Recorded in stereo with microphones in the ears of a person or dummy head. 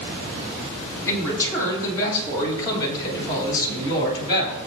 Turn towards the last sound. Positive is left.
turn(degrees=25)  # may be behind; listen again after turning